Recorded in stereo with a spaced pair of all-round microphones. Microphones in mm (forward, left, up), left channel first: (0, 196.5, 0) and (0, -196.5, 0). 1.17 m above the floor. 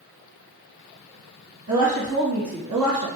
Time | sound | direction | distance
1.7 | a woman speaking | 55° right (ahead or behind) | 1.5 m